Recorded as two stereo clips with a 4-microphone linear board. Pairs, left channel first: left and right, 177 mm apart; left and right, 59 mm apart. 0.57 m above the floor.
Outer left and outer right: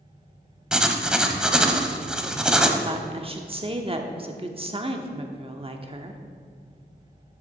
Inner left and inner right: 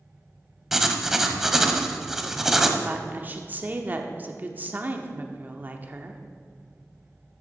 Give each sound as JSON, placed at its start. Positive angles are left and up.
{"t": 0.7, "sound": "writing", "side_deg": -5, "distance_m": 0.8}
{"t": 2.8, "sound": "a woman speaking", "side_deg": -35, "distance_m": 0.9}